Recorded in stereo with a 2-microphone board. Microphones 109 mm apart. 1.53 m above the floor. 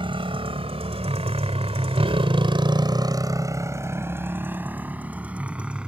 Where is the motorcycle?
55° right (ahead or behind); by 5.9 s 10° right (ahead or behind).